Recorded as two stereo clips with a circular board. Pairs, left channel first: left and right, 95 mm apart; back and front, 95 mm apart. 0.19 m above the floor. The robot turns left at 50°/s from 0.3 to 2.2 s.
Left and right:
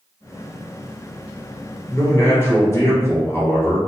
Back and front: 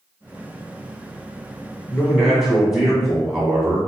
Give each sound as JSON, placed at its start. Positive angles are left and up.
{"t": 1.9, "sound": "a man speaking", "azimuth_deg": 95, "distance_m": 1.1}